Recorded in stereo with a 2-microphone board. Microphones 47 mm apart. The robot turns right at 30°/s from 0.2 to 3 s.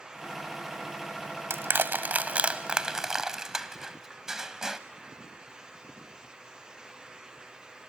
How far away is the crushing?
About 0.7 m.